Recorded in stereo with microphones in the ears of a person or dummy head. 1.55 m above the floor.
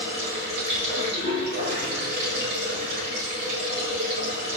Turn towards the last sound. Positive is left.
turn(degrees=-65)  # may be behind; listen again after turning